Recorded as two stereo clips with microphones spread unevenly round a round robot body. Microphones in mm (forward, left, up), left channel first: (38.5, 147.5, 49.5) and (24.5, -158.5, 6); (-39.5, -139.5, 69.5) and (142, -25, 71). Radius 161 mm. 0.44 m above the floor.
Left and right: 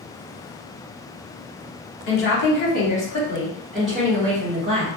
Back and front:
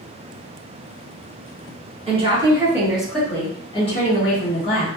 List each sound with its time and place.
2.1 s a woman speaking: 65° left, 1.2 m; by 4.9 s 150° right, 1.5 m